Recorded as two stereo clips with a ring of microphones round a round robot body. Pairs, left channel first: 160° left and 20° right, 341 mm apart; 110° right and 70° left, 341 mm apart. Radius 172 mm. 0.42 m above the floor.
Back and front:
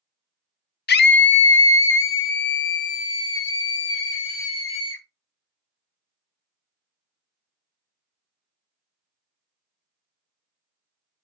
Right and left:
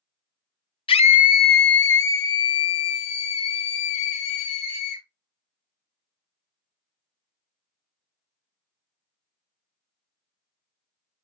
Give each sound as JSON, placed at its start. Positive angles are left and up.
{"t": 0.9, "sound": "a scream", "azimuth_deg": -175, "distance_m": 0.9}